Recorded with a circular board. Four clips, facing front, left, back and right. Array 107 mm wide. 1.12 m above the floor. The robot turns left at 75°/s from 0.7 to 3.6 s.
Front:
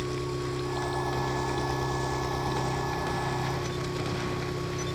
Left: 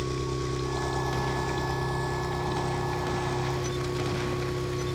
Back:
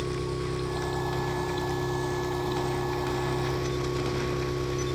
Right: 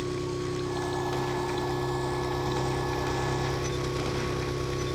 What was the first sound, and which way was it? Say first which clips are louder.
An engine running: even, back 1 dB; 100° left.